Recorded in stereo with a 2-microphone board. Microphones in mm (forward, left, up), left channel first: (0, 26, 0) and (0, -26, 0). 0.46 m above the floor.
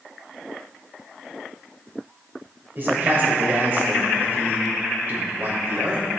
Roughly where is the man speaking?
Right.